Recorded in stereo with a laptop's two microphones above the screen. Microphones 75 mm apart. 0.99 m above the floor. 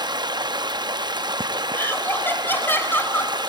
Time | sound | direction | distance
0.0 | running water | 80° right | 0.8 m
1.7 | laughter | 30° left (ahead or behind) | 4.5 m